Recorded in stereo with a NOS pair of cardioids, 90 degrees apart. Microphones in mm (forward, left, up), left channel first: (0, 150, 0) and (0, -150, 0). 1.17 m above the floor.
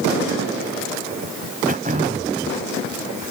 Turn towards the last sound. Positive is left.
turn(degrees=-30)